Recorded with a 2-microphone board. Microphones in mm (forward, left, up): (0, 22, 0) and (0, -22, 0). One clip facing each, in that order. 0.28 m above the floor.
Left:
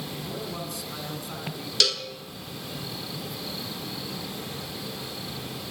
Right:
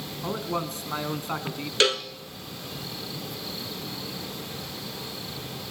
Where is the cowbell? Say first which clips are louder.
Right 4 dB; 35° right (ahead or behind), 1.1 m.